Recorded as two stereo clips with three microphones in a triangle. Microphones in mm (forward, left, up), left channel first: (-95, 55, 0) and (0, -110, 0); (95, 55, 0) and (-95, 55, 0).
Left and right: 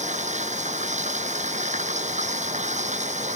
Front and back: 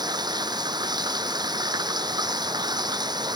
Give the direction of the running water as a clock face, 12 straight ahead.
4 o'clock.